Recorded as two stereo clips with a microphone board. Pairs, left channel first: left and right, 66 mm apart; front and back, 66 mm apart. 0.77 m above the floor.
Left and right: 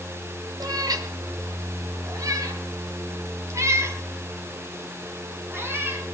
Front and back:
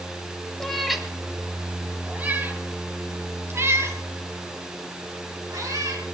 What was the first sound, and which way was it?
A cat meowing, 85° right.